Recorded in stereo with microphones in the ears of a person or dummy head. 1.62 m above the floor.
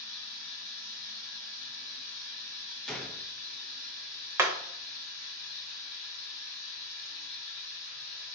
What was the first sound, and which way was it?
Running water, 70° left (ahead or behind).